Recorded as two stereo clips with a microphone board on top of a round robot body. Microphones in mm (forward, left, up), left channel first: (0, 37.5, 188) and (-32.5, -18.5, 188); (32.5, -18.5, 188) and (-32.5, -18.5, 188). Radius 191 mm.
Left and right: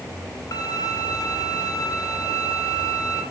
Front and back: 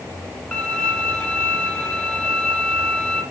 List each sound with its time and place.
0.5 s a violin: 80° left, 2.5 m